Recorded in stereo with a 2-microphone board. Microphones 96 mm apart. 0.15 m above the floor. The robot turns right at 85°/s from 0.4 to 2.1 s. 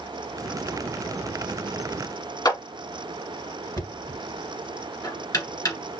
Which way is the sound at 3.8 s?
40° left (ahead or behind).